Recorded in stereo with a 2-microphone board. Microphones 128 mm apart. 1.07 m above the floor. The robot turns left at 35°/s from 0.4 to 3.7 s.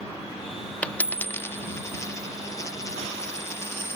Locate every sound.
0.8 s a dropped coin: 10° left (ahead or behind); by 4.0 s 20° left (ahead or behind)